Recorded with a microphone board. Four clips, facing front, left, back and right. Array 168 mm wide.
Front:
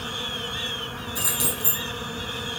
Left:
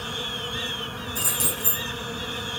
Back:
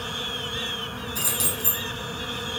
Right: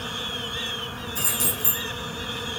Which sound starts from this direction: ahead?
Keys jangling, at 1.1 s.